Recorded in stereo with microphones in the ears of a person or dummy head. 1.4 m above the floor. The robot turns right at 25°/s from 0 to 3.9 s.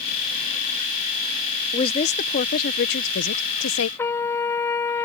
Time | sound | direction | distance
1.7 | a woman speaking | 35° left | ?
4.0 | a trumpet | 10° left (ahead or behind) | ?